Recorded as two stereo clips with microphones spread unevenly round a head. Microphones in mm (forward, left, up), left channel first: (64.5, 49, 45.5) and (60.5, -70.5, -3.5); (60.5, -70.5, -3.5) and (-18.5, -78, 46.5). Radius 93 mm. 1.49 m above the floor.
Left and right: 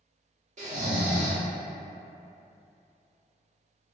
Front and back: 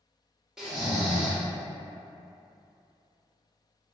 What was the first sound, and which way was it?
Snoring, 85° right.